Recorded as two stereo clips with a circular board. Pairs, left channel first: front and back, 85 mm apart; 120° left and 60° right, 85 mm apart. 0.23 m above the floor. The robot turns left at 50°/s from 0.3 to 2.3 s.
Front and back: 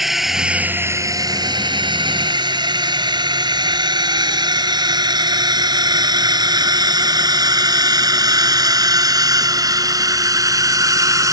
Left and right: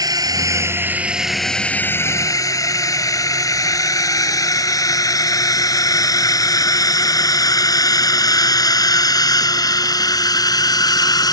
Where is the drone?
95° right; by 11.3 s 140° left.